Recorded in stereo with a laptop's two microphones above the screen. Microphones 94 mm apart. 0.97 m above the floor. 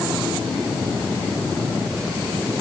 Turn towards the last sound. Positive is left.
No sound to turn to.